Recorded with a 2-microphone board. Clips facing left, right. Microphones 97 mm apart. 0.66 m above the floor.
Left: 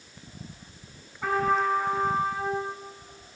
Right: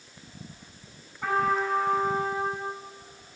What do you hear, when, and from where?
1.2 s a trumpet: centre (ahead or behind), 5.5 m